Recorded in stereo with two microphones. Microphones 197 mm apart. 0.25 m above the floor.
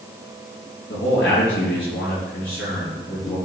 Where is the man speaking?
75° left (ahead or behind), 4 m.